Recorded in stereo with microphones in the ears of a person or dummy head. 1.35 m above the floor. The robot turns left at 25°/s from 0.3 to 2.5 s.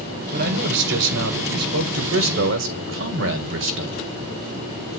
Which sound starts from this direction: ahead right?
A man speaking, at 0.3 s.